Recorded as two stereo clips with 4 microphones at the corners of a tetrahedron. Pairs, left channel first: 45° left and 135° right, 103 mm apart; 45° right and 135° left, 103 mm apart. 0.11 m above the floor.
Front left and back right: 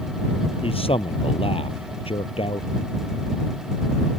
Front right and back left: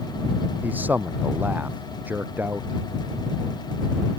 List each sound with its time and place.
0.6 s a man speaking: 65° left